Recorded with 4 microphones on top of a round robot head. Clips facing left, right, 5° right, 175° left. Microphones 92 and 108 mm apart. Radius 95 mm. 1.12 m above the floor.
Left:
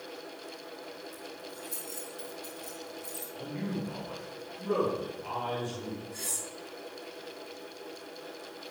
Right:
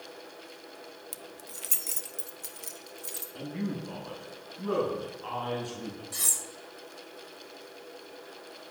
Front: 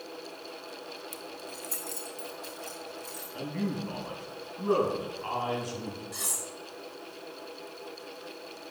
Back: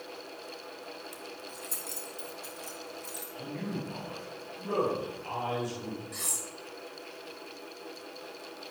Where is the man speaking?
45° right, 10 m.